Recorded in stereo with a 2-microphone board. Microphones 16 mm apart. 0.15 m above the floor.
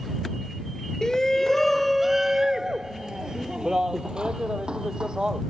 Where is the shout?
40° left (ahead or behind); by 5.4 s 80° right.